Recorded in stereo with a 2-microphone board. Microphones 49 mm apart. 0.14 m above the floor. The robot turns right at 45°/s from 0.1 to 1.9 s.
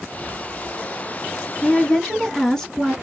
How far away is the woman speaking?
About 1.0 m.